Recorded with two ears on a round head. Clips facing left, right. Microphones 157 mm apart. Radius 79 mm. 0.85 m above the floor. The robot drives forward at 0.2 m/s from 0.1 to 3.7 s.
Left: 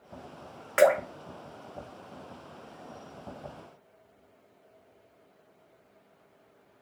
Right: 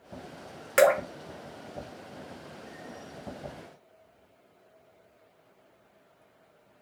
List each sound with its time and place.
0.8 s dripping: 40° right (ahead or behind), 1.0 m